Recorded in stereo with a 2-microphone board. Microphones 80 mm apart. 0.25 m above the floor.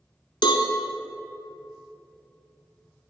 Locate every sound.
0.4 s a cowbell: 70° left (ahead or behind), 0.7 m